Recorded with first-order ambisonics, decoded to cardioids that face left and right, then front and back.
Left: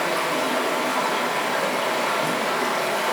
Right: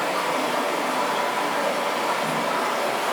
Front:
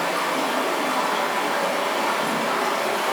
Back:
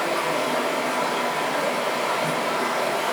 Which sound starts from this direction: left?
Running water, at 0.0 s.